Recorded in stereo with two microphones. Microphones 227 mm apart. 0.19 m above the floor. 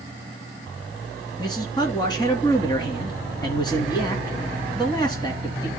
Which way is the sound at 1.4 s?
20° left (ahead or behind).